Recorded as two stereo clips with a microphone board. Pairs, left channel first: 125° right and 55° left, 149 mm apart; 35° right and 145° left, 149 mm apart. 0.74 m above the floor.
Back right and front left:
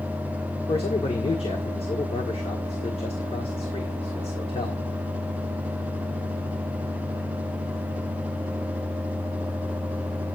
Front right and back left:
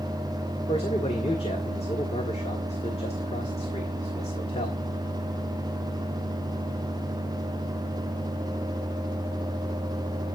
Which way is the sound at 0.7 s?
80° right.